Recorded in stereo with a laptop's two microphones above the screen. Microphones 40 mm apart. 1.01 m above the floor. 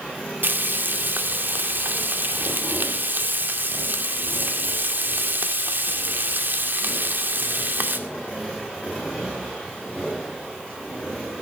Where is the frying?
60° right (ahead or behind), 2 m.